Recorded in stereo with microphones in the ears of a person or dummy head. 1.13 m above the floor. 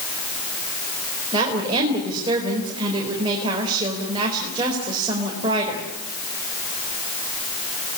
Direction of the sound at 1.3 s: 30° right (ahead or behind).